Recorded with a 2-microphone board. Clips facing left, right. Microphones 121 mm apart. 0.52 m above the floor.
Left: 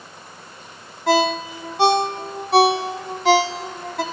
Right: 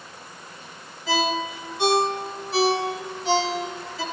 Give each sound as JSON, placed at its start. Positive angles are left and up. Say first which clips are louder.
{"t": 1.1, "sound": "a ringtone", "louder": "left 6 dB", "side_deg": 70, "distance_m": 1.5}